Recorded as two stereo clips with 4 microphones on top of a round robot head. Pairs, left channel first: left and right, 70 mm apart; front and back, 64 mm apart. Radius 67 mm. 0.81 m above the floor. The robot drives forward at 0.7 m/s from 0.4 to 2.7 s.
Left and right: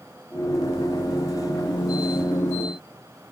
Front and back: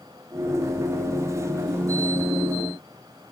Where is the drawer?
No drawer in this recording.